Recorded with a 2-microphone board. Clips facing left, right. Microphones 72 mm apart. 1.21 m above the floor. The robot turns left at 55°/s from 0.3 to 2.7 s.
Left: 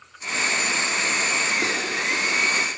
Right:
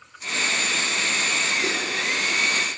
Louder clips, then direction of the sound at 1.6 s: Left 1 dB; 60° left (ahead or behind).